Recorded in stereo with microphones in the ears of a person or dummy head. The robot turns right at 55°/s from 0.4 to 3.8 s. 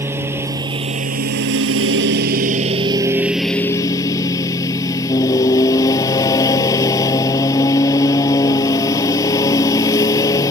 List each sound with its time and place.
0.0 s a lawn mower: 165° right; by 10.5 s 25° left